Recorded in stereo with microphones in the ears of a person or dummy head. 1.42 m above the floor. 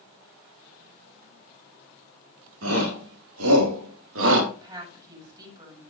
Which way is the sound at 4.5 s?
10° right (ahead or behind).